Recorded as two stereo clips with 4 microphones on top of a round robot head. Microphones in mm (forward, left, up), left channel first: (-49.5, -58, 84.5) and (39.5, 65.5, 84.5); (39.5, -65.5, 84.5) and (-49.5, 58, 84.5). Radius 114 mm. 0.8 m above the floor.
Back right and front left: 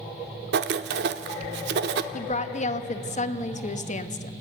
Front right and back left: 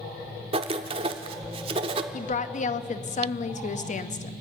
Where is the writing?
70° left, 0.8 m.